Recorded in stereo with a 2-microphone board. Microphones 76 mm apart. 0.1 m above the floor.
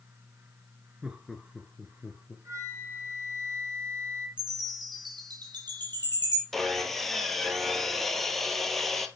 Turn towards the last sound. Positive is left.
turn(degrees=5)  # may be behind; listen again after turning